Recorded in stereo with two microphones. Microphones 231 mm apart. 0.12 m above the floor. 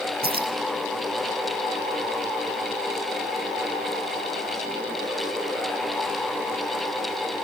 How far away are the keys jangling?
About 2 m.